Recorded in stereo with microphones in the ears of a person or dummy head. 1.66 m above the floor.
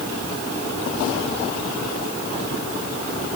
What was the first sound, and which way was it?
Only background noise.